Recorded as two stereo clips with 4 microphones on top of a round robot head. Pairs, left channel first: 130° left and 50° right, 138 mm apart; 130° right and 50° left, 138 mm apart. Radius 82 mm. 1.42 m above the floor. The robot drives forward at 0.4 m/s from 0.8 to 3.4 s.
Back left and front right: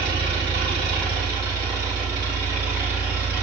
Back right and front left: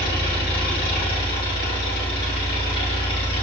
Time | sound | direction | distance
0.0 | an engine running | 110° right | 2.5 m